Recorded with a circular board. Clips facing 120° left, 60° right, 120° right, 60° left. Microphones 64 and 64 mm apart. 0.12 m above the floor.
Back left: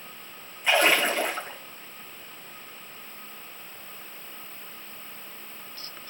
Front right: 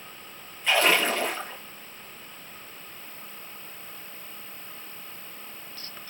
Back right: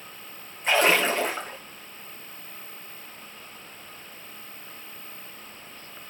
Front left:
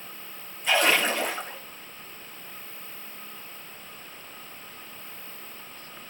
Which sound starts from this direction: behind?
A splash, at 0.6 s.